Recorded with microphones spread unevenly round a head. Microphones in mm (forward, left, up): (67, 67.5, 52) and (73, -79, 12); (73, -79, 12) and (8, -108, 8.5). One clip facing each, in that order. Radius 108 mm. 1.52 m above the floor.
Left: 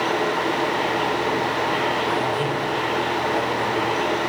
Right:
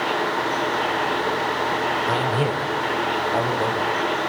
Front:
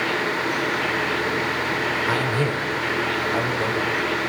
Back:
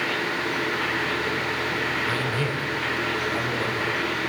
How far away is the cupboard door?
I don't hear a cupboard door.